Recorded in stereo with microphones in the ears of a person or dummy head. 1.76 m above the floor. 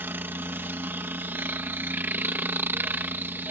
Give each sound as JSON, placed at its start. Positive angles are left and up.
{"t": 0.0, "sound": "a helicopter", "side_deg": -10}